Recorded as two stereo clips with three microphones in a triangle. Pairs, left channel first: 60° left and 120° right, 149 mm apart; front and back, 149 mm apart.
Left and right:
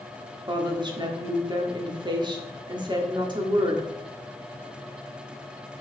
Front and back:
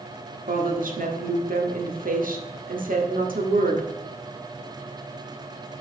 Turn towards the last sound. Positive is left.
turn(degrees=-175)